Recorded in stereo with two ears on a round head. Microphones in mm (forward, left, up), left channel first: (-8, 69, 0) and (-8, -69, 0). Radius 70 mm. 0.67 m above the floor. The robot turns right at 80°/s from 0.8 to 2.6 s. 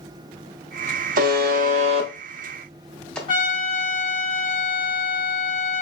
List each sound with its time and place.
1.2 s a buzzer: 55° right (ahead or behind), 0.6 m; by 3.2 s 5° left (ahead or behind), 0.6 m
3.3 s a trumpet: 30° left (ahead or behind), 1.1 m